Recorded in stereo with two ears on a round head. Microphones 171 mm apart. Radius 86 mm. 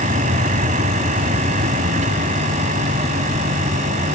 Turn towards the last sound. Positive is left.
turn(degrees=-40)  # may be behind; listen again after turning